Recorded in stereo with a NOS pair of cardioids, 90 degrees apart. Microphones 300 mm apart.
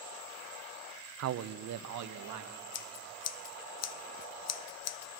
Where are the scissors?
60° left, 0.8 m.